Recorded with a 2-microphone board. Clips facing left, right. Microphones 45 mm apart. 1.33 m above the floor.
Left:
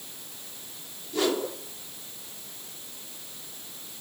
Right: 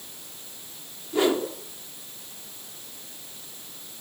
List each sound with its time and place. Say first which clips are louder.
1.1 s a whoosh: right 4 dB; 25° right (ahead or behind), 3.5 m